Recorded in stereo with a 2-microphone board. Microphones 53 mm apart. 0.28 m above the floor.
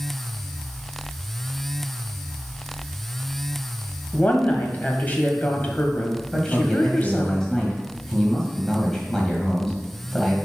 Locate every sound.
4.1 s a woman speaking: 30° left (ahead or behind), 1.3 m
6.3 s a man speaking: 10° left (ahead or behind), 1.7 m